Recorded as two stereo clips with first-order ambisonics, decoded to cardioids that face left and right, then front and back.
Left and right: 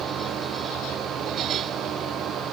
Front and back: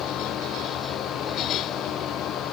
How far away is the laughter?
No laughter in this recording.